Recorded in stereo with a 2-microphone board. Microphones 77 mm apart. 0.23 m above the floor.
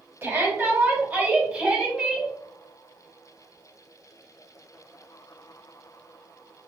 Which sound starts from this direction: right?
A shout, at 0.2 s.